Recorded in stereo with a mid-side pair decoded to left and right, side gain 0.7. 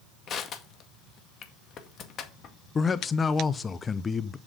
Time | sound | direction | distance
0.3 | crushing | 40° left | 2 m
2.8 | a man speaking | 25° left | 0.7 m